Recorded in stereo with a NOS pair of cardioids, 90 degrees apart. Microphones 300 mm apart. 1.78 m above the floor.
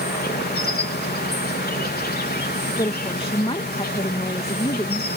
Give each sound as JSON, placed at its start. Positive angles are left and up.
{"t": 0.0, "sound": "an insect", "azimuth_deg": 30}
{"t": 2.8, "sound": "a woman speaking", "azimuth_deg": 20}